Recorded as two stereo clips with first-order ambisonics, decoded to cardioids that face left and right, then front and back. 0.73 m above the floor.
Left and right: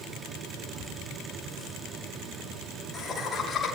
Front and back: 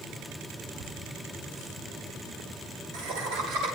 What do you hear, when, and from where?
0.8 s laughter: 175° right, 7 m; by 3.7 s 165° left, 8 m